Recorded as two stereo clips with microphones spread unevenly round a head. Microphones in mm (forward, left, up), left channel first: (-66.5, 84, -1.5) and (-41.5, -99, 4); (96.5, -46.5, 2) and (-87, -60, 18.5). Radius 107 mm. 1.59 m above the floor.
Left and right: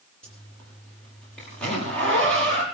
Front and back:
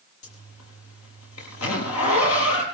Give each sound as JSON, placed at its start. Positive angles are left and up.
{"t": 0.2, "sound": "a zipper", "azimuth_deg": 10, "distance_m": 7.0}